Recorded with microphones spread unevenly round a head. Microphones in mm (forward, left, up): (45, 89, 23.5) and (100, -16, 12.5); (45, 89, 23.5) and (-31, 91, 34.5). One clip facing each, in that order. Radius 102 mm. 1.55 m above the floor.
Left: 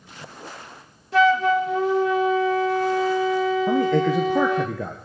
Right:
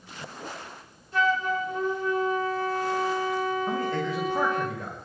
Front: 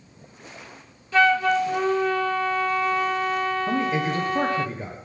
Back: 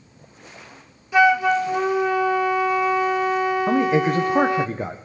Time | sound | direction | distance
1.1 | a flute | 100° left | 1.0 m
3.7 | a man speaking | 150° left | 1.5 m